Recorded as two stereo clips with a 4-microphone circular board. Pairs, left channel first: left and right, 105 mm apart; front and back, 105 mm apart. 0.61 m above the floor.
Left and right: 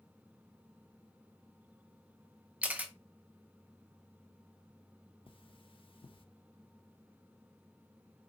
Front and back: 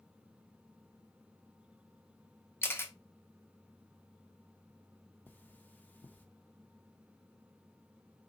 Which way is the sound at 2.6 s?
30° right.